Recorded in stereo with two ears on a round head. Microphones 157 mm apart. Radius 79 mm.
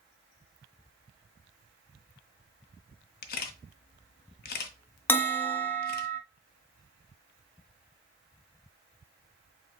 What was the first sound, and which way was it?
A camera shutter, 55° left (ahead or behind).